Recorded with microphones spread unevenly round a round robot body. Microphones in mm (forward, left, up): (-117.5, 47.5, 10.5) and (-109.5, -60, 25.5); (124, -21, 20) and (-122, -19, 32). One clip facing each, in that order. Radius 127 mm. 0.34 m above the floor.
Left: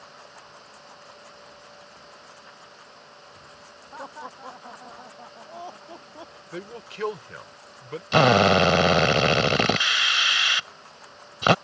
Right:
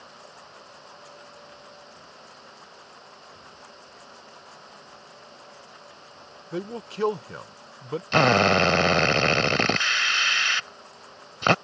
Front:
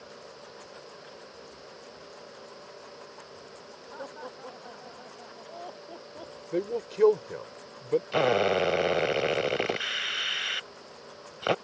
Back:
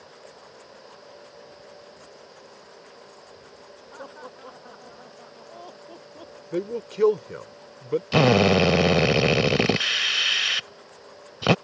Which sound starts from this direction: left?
Laughter, at 3.9 s.